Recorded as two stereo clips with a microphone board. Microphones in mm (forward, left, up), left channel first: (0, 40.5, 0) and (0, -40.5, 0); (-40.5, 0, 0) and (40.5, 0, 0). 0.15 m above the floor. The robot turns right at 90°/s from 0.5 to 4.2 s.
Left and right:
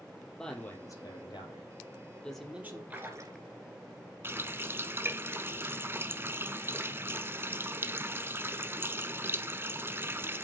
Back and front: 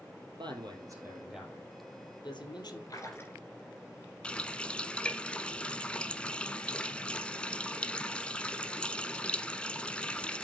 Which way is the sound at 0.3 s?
10° left.